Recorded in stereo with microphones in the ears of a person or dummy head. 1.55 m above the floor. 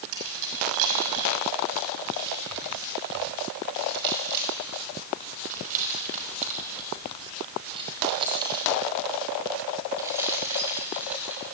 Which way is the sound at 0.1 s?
80° right.